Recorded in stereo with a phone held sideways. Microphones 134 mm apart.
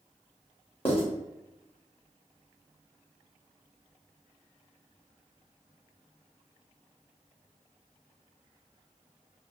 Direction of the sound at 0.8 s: 45° left (ahead or behind).